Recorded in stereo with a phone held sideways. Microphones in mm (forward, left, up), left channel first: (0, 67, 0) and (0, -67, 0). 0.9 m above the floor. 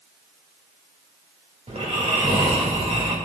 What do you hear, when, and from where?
1.7 s snoring: 55° right (ahead or behind), 2.5 m